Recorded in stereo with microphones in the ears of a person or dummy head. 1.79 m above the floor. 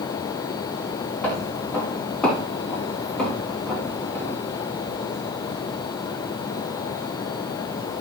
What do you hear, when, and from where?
1.2 s footsteps: 10° left (ahead or behind), 2.5 m